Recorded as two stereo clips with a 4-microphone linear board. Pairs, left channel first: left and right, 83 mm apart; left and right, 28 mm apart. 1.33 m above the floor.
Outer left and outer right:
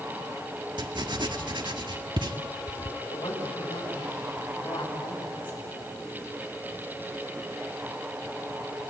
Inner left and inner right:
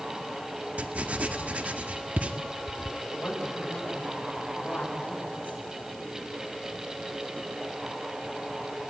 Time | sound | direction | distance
0.8 | writing | 65° right (ahead or behind) | 1.6 m
3.1 | a woman speaking | 85° left | 7.5 m